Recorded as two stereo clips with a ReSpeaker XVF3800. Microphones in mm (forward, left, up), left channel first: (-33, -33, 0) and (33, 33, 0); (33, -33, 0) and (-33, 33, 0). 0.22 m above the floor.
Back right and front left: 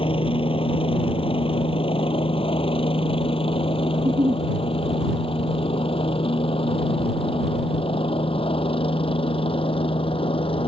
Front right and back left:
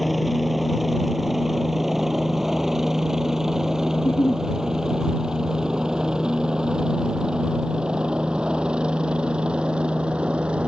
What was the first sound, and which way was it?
A helicopter, 135° right.